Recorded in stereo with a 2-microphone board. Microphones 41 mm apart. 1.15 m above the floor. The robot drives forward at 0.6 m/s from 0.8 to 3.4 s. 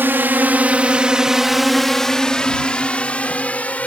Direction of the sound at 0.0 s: 65° right (ahead or behind).